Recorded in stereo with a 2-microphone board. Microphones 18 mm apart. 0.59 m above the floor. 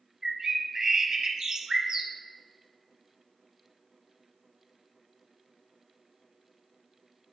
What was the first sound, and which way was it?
A bird, 35° right (ahead or behind).